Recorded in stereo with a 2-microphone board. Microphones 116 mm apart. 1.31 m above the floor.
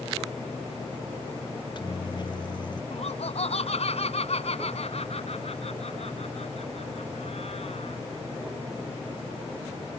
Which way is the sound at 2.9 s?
65° left (ahead or behind).